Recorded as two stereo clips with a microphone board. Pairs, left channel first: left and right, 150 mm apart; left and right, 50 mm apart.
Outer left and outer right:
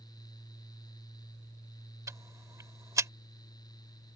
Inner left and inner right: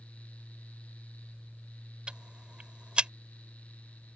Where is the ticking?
20° right (ahead or behind).